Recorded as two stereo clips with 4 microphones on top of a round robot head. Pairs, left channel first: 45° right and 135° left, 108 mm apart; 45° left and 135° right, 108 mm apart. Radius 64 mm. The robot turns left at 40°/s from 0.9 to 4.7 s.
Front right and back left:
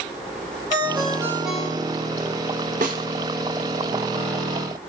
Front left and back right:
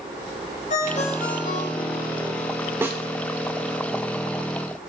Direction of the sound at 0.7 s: 75° left.